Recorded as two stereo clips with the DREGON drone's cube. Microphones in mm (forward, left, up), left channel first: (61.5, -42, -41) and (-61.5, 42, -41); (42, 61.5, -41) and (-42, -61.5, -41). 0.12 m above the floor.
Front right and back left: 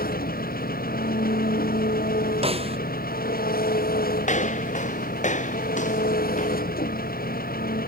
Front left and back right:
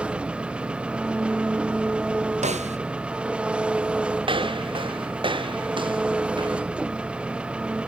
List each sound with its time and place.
0.0 s an engine running: 40° right
2.4 s a snare drum: 165° right
4.2 s footsteps: 70° right; by 6.6 s 65° right